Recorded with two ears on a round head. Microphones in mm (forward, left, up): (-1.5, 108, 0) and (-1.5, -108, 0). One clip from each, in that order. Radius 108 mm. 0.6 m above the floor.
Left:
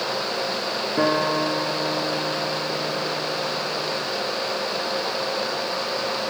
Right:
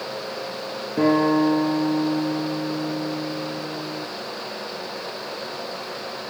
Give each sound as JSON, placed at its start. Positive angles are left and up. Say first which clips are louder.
{"t": 1.0, "sound": "a guitar", "louder": "right 3 dB", "side_deg": 50, "distance_m": 8.0}